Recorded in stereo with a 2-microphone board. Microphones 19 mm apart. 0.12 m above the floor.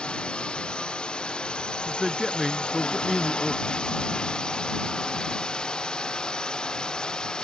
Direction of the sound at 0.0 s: 60° left (ahead or behind).